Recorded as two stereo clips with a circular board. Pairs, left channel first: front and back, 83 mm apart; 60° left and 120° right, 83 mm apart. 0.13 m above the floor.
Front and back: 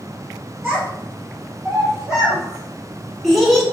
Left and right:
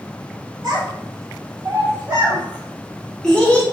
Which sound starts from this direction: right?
A child speaking, at 0.6 s.